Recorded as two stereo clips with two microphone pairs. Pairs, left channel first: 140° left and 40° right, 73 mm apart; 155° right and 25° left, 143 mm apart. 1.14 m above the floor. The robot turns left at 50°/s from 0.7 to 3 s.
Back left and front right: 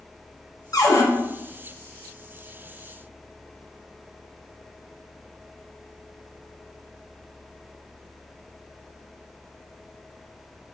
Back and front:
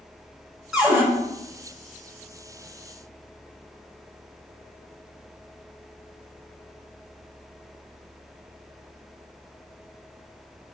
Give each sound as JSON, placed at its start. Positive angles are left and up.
{"t": 0.7, "sound": "a cupboard door", "azimuth_deg": 110, "distance_m": 1.2}